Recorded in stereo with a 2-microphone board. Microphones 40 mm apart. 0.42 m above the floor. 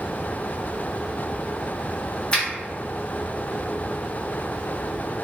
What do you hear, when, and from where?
2.3 s a finger snap: 25° left (ahead or behind), 0.9 m